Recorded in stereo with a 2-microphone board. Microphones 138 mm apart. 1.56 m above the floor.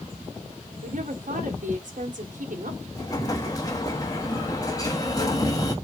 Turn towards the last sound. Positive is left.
turn(degrees=25)  # may be behind; listen again after turning